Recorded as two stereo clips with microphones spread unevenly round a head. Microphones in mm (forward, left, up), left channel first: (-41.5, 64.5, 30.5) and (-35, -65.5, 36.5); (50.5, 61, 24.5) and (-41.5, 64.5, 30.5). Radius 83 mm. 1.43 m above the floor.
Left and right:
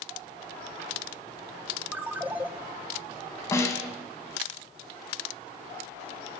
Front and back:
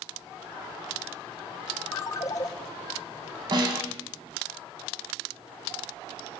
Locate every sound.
1.9 s a ringtone: 25° right, 0.5 m
3.5 s a snare drum: 160° left, 2 m